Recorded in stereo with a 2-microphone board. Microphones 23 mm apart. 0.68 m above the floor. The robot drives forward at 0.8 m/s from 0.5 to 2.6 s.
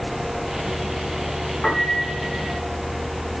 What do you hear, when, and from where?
1.6 s a piano: 55° left (ahead or behind), 5 m; by 2.6 s 50° left (ahead or behind), 5.5 m